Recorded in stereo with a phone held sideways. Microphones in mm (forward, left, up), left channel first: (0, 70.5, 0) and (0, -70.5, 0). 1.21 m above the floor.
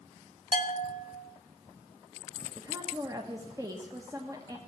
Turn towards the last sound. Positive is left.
turn(degrees=-25)  # may be behind; listen again after turning